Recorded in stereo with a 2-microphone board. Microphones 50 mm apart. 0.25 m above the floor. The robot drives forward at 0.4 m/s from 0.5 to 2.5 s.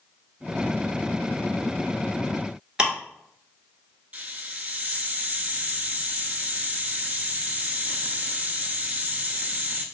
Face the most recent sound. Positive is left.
turn(degrees=-35)  # may be behind; listen again after turning